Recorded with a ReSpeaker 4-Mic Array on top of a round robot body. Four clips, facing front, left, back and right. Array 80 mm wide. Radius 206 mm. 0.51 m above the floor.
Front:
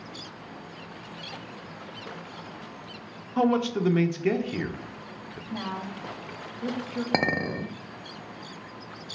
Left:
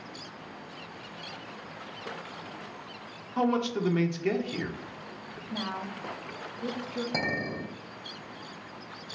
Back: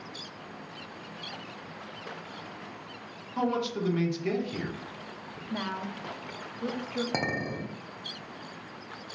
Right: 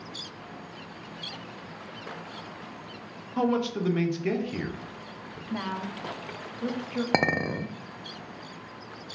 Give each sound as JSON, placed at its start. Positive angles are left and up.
{"t": 3.4, "sound": "a man speaking", "azimuth_deg": 0, "distance_m": 0.7}
{"t": 5.5, "sound": "a woman speaking", "azimuth_deg": -115, "distance_m": 0.7}
{"t": 7.1, "sound": "a clink", "azimuth_deg": -60, "distance_m": 0.5}